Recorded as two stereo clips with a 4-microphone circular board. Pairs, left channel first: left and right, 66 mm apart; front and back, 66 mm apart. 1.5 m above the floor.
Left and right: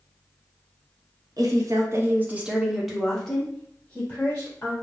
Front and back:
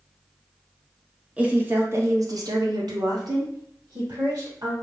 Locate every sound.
1.4 s a woman speaking: 110° right, 0.8 m; by 4.7 s 155° left, 1.9 m